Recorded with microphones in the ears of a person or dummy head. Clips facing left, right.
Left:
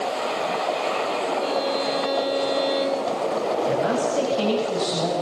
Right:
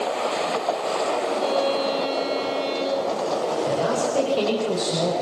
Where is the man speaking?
80° right, 8 m.